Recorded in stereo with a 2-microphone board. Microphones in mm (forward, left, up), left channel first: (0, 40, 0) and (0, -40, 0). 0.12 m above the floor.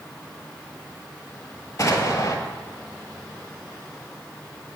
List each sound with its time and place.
1.8 s an explosion: 45° left (ahead or behind), 1.1 m